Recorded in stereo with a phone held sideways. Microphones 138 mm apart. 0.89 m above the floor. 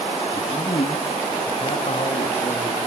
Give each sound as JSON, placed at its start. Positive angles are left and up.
{"t": 0.3, "sound": "a man speaking", "side_deg": 40, "distance_m": 1.5}